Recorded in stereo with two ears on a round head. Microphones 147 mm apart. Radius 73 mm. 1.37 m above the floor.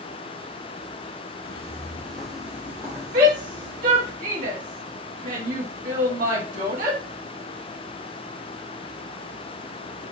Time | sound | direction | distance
1.4 | footsteps | 25° left (ahead or behind) | 1.4 m
3.1 | a shout | 55° right (ahead or behind) | 1.7 m